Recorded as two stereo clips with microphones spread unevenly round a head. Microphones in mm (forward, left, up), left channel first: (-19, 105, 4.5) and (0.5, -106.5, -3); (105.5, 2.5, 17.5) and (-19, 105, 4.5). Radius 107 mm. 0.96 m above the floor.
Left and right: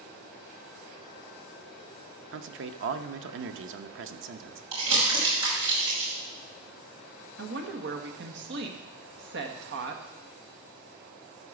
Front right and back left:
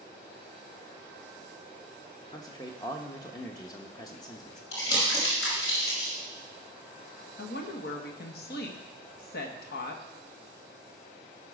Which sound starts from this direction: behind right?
A man speaking, at 2.3 s.